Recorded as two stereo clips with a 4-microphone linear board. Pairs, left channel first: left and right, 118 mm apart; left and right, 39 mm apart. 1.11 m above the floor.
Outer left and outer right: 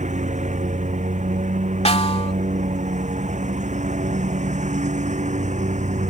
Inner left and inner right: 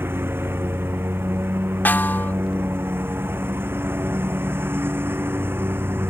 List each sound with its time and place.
0.0 s a lawn mower: 85° right; by 6.1 s 80° right
1.9 s a snare drum: 60° left (ahead or behind)